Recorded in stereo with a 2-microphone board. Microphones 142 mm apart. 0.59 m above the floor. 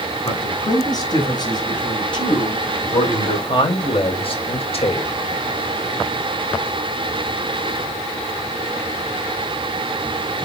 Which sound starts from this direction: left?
A man speaking, at 0.2 s.